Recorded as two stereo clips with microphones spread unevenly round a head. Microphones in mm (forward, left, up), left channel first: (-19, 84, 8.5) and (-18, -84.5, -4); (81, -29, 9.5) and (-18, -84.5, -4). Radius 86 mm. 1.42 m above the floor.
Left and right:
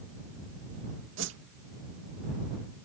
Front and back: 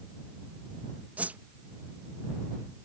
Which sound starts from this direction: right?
A whoosh, at 1.2 s.